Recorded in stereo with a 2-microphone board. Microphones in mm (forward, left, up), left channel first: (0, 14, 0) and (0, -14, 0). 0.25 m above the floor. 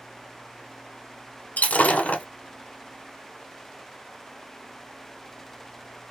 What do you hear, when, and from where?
1.6 s breaking glass: 70° left (ahead or behind), 1.0 m